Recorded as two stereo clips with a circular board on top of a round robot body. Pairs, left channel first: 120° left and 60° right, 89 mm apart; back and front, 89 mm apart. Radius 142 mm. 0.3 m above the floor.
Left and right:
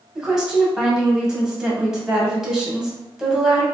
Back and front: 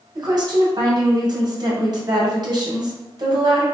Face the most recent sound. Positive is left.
turn(degrees=25)